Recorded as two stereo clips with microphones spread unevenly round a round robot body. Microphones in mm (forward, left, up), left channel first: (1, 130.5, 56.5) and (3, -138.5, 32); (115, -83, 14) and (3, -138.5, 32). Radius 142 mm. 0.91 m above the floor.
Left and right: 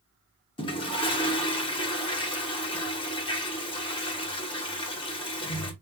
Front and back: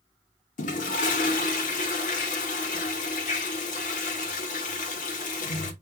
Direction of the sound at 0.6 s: 20° left.